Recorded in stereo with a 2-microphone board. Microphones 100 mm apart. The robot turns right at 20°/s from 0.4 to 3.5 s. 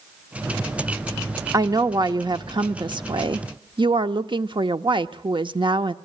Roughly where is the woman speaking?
Behind right.